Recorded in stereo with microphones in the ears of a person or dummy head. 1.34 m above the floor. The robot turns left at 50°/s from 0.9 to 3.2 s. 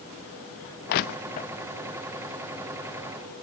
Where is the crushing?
45° left (ahead or behind), 0.7 m; by 1.5 s 35° left (ahead or behind), 0.7 m.